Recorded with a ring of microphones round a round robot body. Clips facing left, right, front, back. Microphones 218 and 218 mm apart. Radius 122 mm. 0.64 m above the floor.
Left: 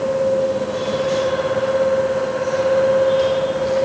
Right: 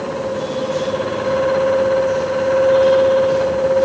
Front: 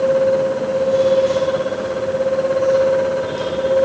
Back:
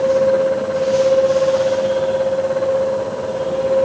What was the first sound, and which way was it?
Only background noise.